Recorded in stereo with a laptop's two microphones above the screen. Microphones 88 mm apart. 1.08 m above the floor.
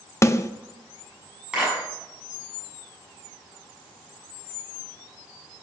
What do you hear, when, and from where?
0.2 s a snare drum: 35° left (ahead or behind), 0.5 m
1.5 s a clap: 10° right (ahead or behind), 8 m